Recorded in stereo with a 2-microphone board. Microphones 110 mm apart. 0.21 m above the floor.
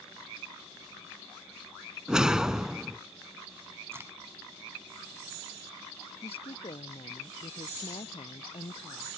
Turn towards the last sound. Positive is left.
turn(degrees=60)  # may be behind; listen again after turning